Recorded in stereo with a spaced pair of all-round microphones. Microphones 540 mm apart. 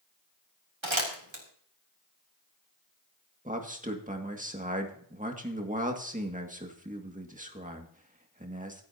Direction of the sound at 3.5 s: 15° right (ahead or behind).